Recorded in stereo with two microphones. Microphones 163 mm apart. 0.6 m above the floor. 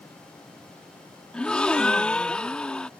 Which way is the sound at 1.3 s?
5° left (ahead or behind).